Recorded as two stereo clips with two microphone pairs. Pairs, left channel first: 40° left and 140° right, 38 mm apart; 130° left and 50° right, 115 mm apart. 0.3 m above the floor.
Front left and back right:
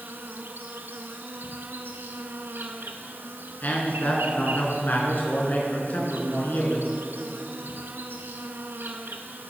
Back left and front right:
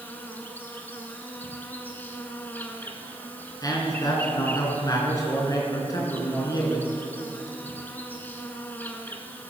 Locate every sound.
0.0 s an insect: 155° right, 1.2 m
3.6 s a man speaking: 75° left, 3 m